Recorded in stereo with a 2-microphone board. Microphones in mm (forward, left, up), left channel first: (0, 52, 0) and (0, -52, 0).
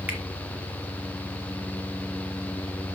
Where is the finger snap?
15° right (ahead or behind), 2.5 m.